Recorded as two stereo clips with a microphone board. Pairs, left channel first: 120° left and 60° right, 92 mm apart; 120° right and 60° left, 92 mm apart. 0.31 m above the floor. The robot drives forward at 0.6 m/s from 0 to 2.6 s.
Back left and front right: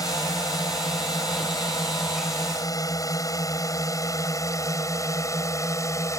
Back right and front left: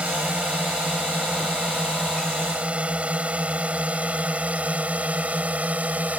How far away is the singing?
I don't hear singing.